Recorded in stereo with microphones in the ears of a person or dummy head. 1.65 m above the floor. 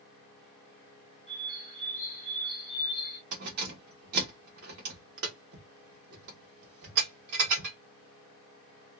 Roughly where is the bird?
Left.